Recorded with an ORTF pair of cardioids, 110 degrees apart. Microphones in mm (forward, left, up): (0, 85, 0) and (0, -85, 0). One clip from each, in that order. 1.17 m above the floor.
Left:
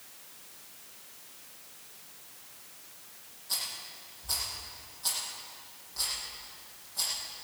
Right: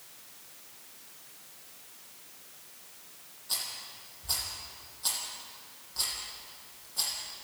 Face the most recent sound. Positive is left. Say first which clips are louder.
# even
turn(degrees=-20)